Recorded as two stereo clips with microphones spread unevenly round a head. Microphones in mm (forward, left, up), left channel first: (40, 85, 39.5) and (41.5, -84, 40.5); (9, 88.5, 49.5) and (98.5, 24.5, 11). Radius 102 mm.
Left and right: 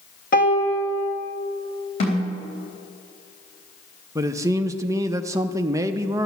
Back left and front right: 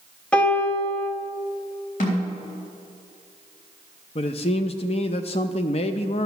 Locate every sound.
0.3 s a piano: 55° left, 1.7 m
2.0 s a snare drum: 150° left, 3.5 m
4.2 s a man speaking: 160° right, 0.5 m